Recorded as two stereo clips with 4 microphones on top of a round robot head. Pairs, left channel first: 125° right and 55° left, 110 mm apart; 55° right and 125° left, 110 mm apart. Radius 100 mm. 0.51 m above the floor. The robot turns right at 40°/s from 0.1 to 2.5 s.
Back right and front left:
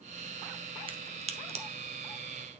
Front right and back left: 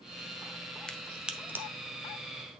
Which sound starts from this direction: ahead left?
A crack, at 0.9 s.